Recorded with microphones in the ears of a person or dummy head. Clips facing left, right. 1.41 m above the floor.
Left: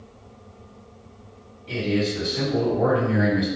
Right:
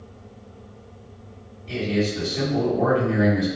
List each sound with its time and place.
1.7 s a man speaking: 10° left (ahead or behind), 1.8 m